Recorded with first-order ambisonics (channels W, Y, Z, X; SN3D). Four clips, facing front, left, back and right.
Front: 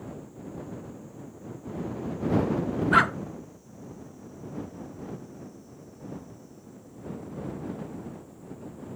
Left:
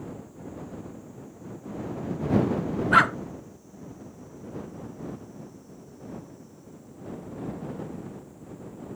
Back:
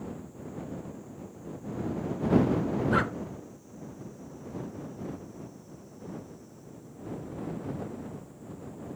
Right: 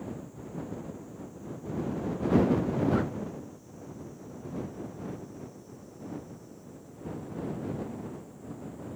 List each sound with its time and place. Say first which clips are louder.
2.9 s a dog barking: left 11 dB, front 9 dB; 60° left